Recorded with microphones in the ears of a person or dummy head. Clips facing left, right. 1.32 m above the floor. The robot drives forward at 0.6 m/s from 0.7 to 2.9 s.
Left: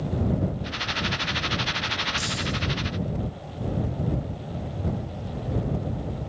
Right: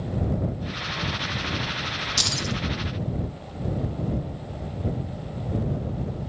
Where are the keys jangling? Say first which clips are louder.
Right 2 dB; 75° right (ahead or behind), 1.2 m; by 2.5 s 80° right, 1.1 m.